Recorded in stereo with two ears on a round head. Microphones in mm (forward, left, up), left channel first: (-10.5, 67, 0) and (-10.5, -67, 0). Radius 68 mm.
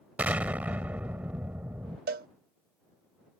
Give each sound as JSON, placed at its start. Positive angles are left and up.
{"t": 0.2, "sound": "an explosion", "side_deg": -10}
{"t": 2.1, "sound": "a cowbell", "side_deg": -75}